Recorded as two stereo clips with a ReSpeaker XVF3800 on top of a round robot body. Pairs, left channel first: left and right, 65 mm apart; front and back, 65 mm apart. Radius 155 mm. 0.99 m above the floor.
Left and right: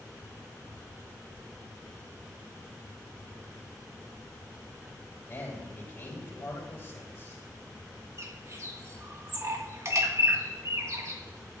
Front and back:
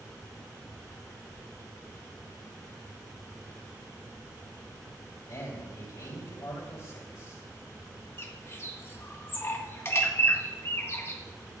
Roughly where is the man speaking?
Ahead left.